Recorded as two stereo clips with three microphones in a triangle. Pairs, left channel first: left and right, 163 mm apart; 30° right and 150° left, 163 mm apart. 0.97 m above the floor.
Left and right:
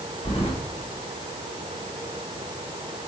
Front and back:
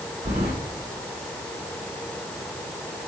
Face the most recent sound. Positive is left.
turn(degrees=145)